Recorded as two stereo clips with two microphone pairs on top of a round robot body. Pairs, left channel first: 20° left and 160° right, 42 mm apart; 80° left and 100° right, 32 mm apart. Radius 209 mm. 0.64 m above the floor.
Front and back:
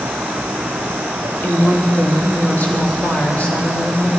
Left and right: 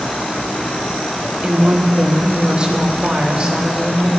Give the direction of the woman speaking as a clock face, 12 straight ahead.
1 o'clock.